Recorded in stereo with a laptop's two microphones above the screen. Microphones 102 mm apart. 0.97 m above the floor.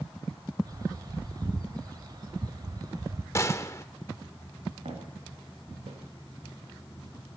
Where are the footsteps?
75° right (ahead or behind), 8 m; by 6.0 s 80° right, 8 m.